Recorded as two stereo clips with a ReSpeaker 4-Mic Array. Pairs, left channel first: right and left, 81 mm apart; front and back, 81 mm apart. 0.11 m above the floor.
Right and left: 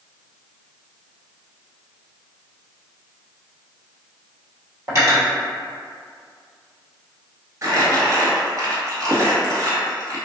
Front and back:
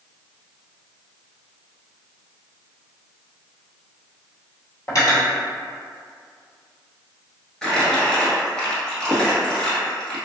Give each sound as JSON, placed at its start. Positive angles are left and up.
{"t": 4.9, "sound": "cutlery clinking", "azimuth_deg": 45, "distance_m": 1.5}
{"t": 7.6, "sound": "crumpling", "azimuth_deg": 80, "distance_m": 1.0}